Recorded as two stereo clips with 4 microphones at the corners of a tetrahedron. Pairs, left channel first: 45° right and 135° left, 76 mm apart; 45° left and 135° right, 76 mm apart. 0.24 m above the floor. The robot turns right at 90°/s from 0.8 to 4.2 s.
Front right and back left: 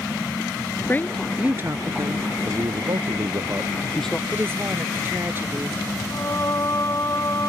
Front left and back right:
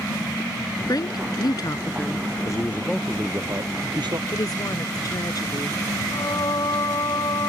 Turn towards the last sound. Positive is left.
turn(degrees=10)